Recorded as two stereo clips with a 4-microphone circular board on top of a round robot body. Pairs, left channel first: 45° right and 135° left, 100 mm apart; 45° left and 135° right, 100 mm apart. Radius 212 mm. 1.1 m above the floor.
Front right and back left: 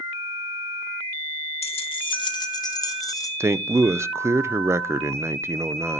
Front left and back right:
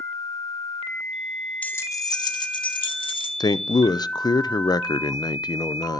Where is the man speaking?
80° left, 0.7 m.